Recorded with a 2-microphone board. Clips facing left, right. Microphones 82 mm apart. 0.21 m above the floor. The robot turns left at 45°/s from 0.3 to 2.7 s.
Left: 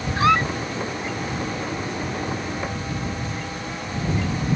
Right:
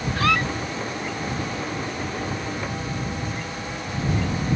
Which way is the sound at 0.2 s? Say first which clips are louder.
Left 4 dB; 20° left (ahead or behind).